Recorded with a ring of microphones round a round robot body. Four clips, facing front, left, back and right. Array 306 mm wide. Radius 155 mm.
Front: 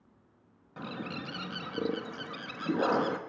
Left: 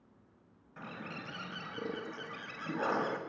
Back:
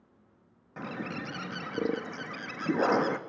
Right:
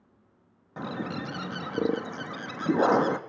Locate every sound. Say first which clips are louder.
0.8 s a bird: right 12 dB, back 2 dB; 100° right, 1.0 m